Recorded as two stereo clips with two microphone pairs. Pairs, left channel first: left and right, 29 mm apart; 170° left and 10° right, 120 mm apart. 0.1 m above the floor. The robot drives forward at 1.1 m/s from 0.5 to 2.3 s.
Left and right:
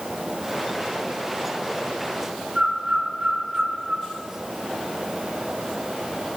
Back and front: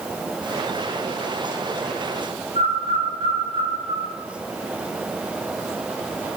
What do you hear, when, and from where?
2.5 s a bird: 40° right, 3 m